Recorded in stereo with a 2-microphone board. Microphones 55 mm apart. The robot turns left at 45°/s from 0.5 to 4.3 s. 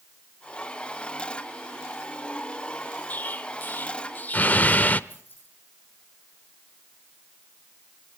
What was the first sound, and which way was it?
An explosion, 30° left (ahead or behind).